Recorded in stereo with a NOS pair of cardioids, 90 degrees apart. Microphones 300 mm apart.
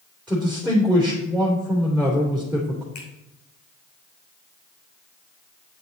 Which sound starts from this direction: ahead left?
A finger snap, at 3.0 s.